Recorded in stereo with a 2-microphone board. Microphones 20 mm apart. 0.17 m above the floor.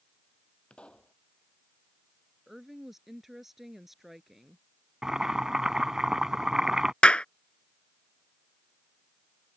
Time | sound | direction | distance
0.7 | a pop | 55° left (ahead or behind) | ?
2.5 | a woman speaking | 15° right (ahead or behind) | ?
5.0 | boiling | 25° right (ahead or behind) | ?
7.0 | a clap | 60° left (ahead or behind) | ?